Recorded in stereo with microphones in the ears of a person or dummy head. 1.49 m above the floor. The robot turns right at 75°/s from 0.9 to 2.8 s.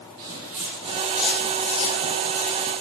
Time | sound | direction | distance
0.2 | footsteps | 50° right (ahead or behind) | 2.5 m